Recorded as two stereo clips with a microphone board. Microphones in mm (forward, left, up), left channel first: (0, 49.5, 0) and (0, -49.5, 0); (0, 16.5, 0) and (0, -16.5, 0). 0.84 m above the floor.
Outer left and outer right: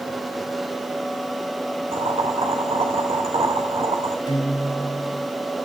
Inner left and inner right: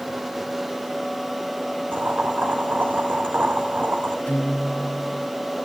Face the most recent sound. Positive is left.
turn(degrees=45)  # may be behind; listen again after turning